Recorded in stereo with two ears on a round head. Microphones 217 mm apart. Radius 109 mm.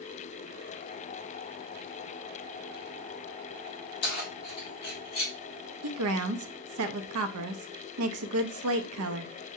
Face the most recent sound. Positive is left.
turn(degrees=-65)  # may be behind; listen again after turning